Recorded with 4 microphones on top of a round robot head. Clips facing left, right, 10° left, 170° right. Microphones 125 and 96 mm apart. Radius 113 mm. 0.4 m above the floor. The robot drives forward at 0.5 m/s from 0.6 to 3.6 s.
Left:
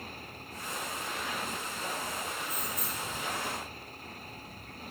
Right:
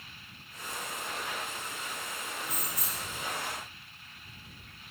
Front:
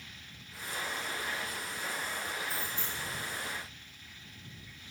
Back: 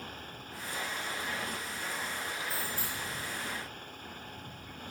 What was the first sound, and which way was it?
A motorcycle, 145° left.